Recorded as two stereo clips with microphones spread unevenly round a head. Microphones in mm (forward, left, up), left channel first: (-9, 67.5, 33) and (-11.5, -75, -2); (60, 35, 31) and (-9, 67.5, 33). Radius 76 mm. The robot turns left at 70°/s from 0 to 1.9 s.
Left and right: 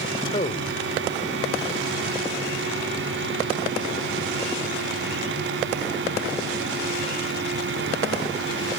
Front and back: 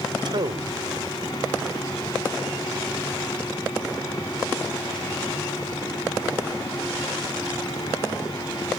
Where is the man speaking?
145° left; by 0.8 s 105° left.